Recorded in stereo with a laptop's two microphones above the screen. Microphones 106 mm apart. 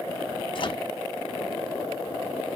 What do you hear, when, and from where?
0.6 s a microwave: 45° left (ahead or behind), 1.1 m